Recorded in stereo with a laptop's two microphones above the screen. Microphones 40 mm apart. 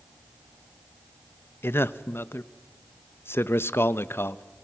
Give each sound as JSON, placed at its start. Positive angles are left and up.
{"t": 1.6, "sound": "a man speaking", "side_deg": 70, "distance_m": 0.8}